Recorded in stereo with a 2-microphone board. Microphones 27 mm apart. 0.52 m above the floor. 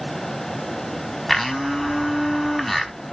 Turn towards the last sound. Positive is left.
turn(degrees=5)  # may be behind; listen again after turning